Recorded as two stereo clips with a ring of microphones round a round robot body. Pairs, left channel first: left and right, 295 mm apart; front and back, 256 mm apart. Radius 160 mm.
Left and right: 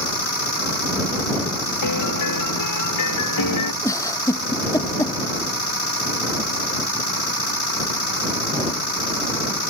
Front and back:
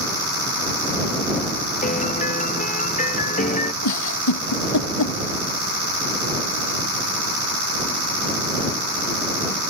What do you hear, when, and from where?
1.8 s a piano: 60° left
3.8 s a giggle: 10° left